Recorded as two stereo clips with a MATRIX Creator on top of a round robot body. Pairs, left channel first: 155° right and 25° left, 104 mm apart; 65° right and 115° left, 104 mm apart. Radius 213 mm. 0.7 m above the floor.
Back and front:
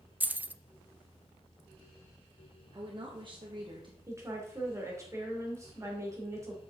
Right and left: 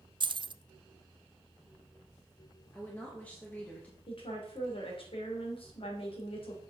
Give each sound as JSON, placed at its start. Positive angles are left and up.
{"t": 0.2, "sound": "keys jangling", "azimuth_deg": 95, "distance_m": 0.5}
{"t": 2.7, "sound": "a woman speaking", "azimuth_deg": 5, "distance_m": 1.6}
{"t": 4.1, "sound": "a woman speaking", "azimuth_deg": -40, "distance_m": 2.5}